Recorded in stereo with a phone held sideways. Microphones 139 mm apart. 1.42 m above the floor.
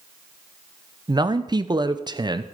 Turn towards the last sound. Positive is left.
turn(degrees=-30)  # may be behind; listen again after turning